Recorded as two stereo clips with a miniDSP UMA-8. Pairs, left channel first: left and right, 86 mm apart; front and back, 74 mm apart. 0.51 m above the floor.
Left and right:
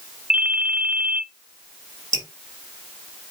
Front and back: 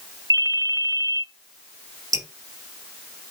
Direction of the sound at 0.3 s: 165° right.